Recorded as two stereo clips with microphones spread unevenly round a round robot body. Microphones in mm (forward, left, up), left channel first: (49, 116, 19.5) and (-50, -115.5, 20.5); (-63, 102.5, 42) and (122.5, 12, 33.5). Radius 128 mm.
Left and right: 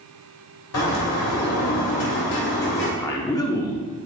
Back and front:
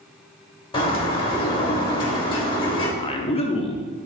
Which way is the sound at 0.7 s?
90° left.